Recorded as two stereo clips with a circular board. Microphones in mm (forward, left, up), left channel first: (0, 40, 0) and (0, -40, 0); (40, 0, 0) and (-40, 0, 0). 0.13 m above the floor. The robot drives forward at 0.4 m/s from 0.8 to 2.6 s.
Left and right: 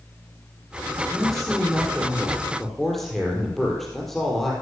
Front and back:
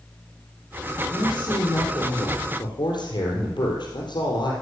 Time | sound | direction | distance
1.1 | a man speaking | straight ahead | 4.5 m